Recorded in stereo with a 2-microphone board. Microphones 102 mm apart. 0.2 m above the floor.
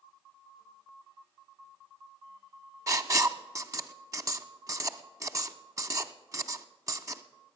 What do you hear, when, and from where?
2.9 s writing: 35° right (ahead or behind), 0.6 m